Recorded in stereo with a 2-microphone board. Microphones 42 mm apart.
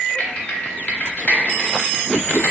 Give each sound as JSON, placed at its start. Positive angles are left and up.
{"t": 0.2, "sound": "typing on a keyboard", "side_deg": 35, "distance_m": 0.8}